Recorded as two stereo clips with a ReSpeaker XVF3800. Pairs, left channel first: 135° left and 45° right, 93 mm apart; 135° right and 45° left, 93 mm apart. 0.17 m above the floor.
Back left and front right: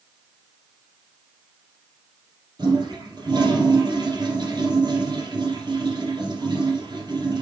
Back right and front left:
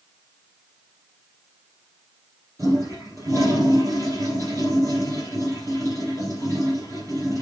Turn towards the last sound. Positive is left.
turn(degrees=-10)